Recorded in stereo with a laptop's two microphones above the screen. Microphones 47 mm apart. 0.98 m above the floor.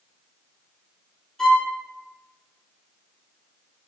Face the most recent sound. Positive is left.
turn(degrees=10)  # may be behind; listen again after turning